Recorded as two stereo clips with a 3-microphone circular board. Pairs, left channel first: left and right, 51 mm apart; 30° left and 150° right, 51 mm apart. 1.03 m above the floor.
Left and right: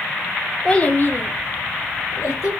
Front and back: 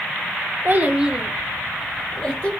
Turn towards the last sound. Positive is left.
turn(degrees=95)